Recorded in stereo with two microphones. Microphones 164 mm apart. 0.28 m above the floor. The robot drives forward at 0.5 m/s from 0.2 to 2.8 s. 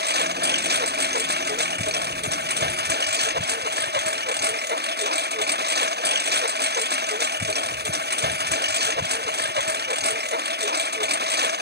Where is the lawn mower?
85° right; by 11.6 s 90° right.